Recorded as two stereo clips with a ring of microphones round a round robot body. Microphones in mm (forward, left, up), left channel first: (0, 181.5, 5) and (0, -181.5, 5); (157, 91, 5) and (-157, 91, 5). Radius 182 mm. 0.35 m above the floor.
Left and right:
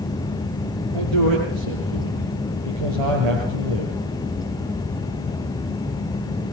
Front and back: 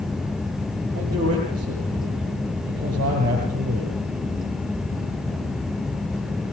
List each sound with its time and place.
0.9 s a man speaking: 105° right, 6.5 m